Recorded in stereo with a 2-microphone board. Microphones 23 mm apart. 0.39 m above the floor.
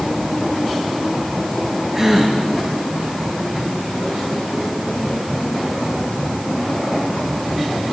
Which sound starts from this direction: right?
A gasp, at 1.9 s.